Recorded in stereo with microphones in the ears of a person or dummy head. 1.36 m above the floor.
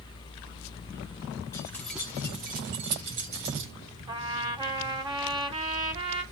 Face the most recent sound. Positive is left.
turn(degrees=-20)  # may be behind; listen again after turning